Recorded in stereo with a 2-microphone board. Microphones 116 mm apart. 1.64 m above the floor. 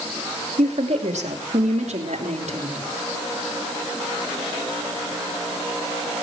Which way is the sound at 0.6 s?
80° right.